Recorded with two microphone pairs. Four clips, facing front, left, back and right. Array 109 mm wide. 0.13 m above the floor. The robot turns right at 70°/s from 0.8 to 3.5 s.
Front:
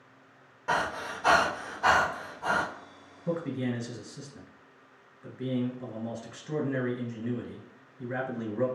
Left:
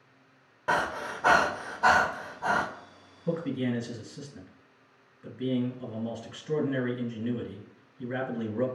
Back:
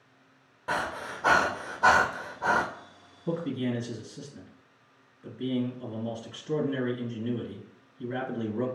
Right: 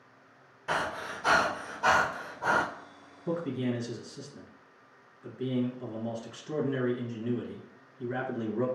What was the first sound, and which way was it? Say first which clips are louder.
Breathing: left 4 dB, front 2 dB; 95° left.